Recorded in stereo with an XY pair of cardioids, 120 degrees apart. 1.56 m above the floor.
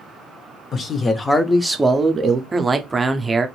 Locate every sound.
0.7 s a man speaking: 40° left, 0.8 m; by 2.4 s 40° right, 0.6 m
2.5 s a man speaking: 20° right, 0.6 m